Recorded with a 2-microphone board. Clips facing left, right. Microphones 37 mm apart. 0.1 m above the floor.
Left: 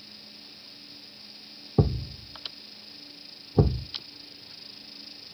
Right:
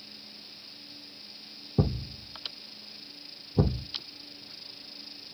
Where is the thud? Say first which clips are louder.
Left 3 dB; 30° left (ahead or behind), 1.5 m.